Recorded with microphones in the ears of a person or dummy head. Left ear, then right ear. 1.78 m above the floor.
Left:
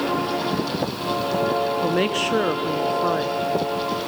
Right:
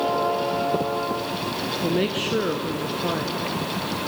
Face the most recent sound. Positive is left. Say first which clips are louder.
# left 3 dB
turn(degrees=35)  # may be behind; listen again after turning